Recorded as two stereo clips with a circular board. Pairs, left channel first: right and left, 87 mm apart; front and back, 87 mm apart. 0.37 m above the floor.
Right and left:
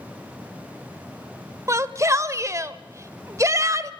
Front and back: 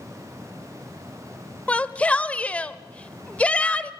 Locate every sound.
1.7 s a shout: 65° left, 1.0 m